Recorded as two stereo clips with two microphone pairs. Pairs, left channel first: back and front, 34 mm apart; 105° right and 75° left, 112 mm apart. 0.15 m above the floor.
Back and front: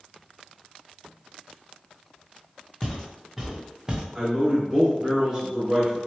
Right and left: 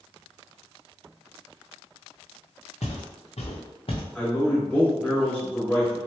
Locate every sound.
2.8 s footsteps: 105° right, 1.1 m; by 4.0 s 65° right, 1.0 m
4.2 s a man speaking: 40° right, 1.6 m